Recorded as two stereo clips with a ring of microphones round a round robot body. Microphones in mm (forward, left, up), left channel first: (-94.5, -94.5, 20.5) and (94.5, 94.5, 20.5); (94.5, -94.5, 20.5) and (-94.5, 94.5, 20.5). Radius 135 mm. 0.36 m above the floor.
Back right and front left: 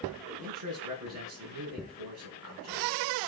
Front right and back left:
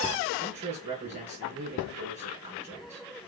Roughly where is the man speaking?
Left.